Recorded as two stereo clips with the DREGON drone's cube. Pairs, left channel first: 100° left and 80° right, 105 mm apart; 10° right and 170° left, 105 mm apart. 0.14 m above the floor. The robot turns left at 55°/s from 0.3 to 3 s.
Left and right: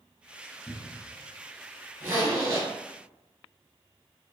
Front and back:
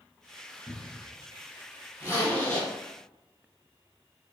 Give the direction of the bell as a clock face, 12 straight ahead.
No bell in this recording.